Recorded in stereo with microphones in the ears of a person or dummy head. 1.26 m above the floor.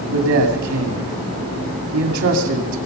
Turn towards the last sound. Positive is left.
turn(degrees=-80)